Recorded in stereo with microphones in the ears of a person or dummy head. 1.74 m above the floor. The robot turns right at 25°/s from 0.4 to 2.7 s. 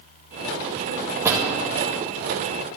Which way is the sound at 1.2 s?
15° right (ahead or behind).